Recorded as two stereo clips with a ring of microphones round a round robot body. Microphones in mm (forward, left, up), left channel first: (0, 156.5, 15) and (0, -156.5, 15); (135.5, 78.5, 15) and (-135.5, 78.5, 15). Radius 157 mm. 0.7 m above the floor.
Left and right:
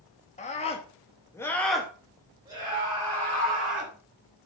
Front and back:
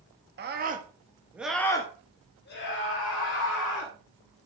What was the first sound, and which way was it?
A scream, 150° left.